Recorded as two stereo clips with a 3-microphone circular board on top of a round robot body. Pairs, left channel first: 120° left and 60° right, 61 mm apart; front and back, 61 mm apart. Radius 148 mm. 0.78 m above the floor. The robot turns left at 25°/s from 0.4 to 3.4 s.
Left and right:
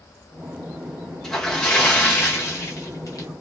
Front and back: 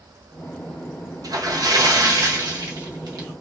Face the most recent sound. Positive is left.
turn(degrees=150)